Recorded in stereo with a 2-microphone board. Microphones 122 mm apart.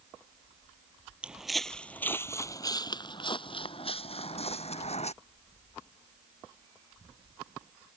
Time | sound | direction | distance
1.2 | footsteps | 10° right (ahead or behind) | ?